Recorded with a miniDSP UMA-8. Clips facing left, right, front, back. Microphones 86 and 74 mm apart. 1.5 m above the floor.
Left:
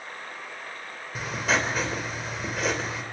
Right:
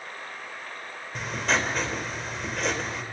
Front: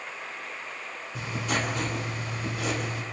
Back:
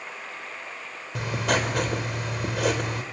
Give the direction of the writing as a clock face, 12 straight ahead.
6 o'clock.